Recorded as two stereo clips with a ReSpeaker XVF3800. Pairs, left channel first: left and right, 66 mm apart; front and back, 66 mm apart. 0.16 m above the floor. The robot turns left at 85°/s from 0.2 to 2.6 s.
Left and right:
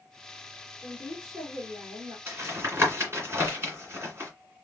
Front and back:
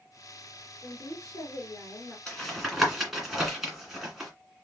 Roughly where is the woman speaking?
Ahead left.